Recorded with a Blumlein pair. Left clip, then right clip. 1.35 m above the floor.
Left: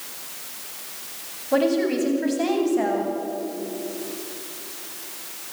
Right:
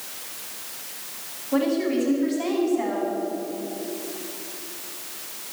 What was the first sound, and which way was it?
A woman speaking, 60° left.